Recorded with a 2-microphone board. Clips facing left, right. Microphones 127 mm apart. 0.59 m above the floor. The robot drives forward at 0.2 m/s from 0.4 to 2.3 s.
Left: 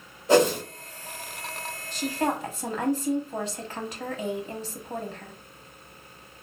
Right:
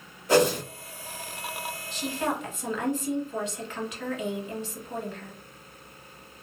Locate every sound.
0.3 s a whoosh: 25° left (ahead or behind), 1.4 m
1.9 s a woman speaking: 40° left (ahead or behind), 0.8 m; by 5.3 s 35° left (ahead or behind), 0.8 m